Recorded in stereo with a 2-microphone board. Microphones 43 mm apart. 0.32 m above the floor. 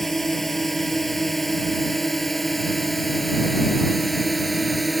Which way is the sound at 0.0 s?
5° left (ahead or behind).